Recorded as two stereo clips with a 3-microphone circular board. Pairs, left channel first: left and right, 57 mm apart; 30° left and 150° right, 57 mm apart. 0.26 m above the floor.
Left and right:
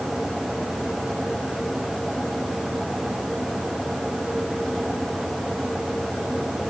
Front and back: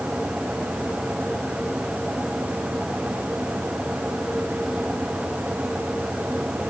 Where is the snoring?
No snoring in this recording.